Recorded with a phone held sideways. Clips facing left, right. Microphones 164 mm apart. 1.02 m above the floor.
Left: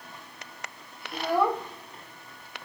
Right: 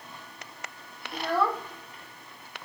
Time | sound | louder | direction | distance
1.1 | a child speaking | left 2 dB | centre (ahead or behind) | 1.5 m